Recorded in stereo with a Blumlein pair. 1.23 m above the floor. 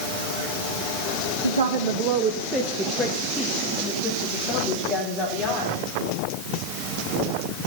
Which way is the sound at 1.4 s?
70° right.